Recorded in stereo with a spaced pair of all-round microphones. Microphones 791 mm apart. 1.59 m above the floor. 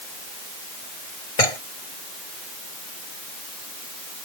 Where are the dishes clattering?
45° left (ahead or behind).